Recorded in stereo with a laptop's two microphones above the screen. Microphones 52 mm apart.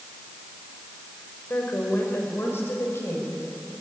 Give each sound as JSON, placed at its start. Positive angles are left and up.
{"t": 1.5, "sound": "a woman speaking", "side_deg": 45, "distance_m": 4.5}